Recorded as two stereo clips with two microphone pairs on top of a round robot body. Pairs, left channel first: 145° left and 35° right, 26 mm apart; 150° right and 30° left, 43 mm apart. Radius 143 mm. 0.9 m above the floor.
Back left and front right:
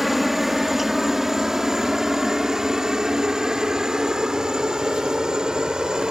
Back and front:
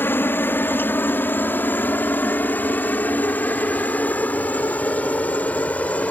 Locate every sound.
0.0 s a helicopter: 120° right; by 6.1 s 95° right